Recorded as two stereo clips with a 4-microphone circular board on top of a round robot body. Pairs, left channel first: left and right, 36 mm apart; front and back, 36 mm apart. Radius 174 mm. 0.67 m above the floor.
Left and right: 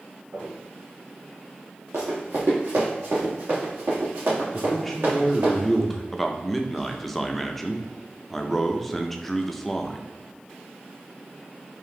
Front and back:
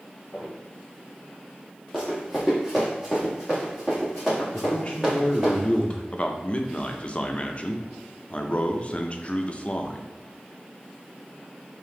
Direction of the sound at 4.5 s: 10° left.